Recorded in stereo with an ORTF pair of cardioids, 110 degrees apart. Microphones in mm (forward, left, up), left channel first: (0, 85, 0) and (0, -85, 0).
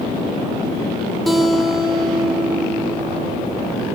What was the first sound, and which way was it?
A guitar, straight ahead.